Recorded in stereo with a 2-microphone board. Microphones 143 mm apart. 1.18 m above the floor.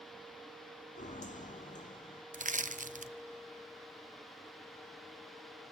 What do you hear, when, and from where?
1.0 s footsteps: 60° left (ahead or behind), 2.5 m; by 2.2 s 55° left (ahead or behind), 2.5 m
2.3 s crushing: 65° right (ahead or behind), 0.6 m